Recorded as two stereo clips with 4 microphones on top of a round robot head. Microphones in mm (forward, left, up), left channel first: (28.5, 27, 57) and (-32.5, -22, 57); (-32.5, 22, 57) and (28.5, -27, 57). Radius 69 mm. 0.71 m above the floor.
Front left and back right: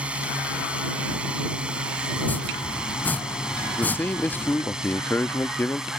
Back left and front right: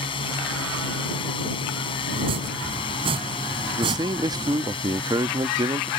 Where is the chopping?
30° right.